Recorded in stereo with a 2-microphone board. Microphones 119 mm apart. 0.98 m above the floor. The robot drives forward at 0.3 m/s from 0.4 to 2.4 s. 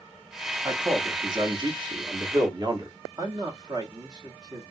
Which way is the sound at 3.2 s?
35° right (ahead or behind).